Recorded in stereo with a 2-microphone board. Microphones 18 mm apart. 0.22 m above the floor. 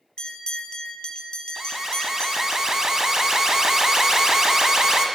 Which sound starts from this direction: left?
A bell, at 0.2 s.